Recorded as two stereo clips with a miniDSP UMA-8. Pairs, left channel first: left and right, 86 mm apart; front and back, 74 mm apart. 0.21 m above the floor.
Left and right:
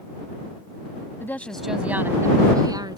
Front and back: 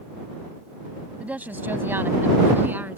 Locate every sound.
1.2 s a woman speaking: 120° left; by 3.0 s 115° right